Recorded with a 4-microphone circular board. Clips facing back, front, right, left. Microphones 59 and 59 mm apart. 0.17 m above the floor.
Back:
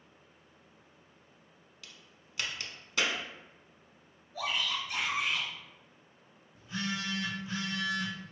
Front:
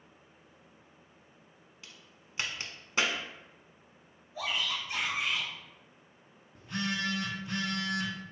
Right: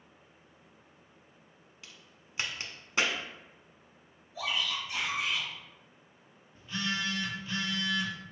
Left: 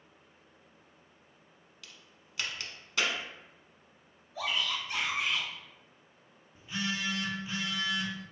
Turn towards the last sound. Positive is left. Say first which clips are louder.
# front 2 dB, right 1 dB
turn(degrees=15)